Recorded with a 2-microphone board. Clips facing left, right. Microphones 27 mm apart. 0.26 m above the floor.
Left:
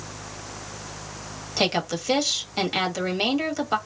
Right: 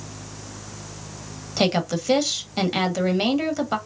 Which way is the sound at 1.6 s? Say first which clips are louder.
Right 2 dB; centre (ahead or behind).